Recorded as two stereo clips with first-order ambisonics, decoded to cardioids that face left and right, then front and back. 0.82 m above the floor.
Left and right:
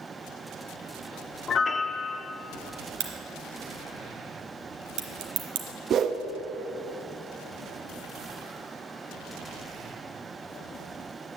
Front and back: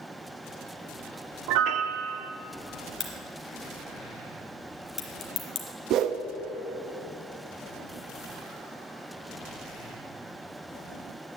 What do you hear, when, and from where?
1.5 s a piano: 155° left, 0.5 m
3.0 s a crack: 65° right, 1.5 m
5.9 s a whoosh: 145° right, 0.5 m